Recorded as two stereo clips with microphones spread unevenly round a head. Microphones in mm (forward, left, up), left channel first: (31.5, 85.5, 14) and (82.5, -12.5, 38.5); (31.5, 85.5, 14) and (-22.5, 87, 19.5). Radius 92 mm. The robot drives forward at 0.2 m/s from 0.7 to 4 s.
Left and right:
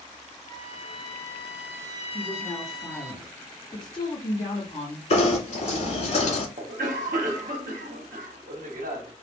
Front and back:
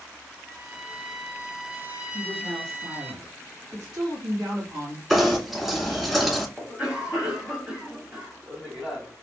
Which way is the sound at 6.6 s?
95° right.